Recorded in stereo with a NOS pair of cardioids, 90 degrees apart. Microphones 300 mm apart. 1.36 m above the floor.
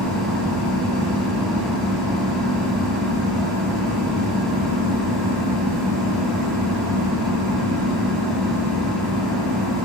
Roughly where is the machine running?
Ahead.